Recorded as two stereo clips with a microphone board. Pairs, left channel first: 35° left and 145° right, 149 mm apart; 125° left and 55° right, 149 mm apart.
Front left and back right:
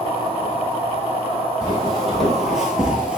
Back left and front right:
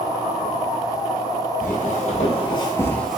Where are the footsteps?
120° left, 1.1 m; by 3.2 s 105° right, 0.5 m.